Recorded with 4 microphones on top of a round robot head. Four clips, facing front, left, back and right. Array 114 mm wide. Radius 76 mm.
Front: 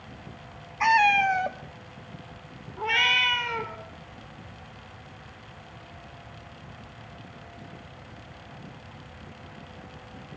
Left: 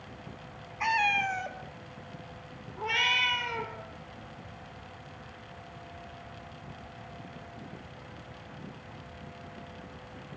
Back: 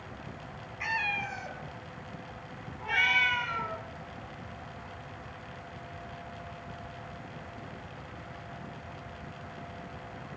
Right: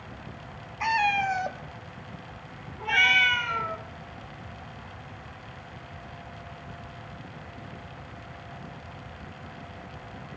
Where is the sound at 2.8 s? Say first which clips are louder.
Right 6 dB, front 3 dB; 20° left, 2.5 m.